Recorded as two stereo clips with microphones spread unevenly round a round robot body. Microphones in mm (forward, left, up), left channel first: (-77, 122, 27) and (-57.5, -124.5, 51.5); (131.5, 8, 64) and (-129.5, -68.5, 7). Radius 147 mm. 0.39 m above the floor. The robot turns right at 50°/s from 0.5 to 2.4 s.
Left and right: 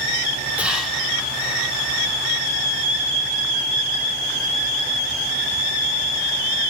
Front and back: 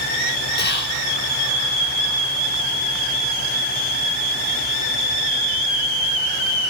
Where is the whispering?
5° left, 1.0 m; by 1.0 s 25° left, 1.0 m.